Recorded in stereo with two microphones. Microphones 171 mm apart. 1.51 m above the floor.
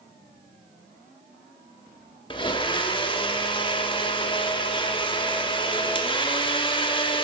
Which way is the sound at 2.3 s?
30° left (ahead or behind).